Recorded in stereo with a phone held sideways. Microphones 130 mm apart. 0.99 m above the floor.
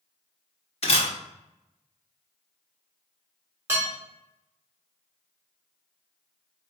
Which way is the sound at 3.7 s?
20° right (ahead or behind).